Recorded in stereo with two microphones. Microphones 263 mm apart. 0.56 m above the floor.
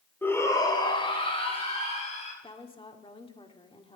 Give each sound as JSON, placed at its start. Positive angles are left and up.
{"t": 0.2, "sound": "a shout", "side_deg": 10, "distance_m": 1.8}
{"t": 2.4, "sound": "a woman speaking", "side_deg": 20, "distance_m": 1.6}